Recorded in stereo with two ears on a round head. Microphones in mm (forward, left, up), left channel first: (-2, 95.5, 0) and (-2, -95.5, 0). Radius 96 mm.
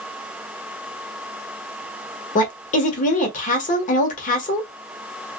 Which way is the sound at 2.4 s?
35° left (ahead or behind).